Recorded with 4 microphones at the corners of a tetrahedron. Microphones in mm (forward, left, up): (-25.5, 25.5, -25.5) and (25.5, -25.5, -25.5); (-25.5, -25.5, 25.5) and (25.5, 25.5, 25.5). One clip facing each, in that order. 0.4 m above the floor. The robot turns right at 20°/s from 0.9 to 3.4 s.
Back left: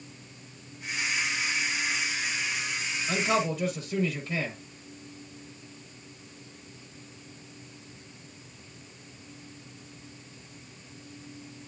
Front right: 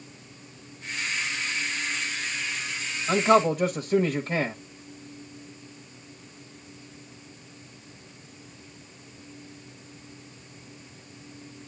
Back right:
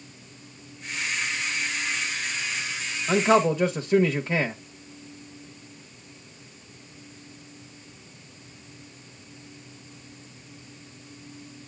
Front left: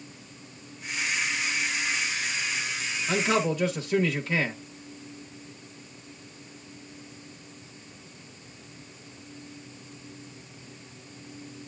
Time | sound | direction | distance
3.1 | a man speaking | 85° right | 1.2 m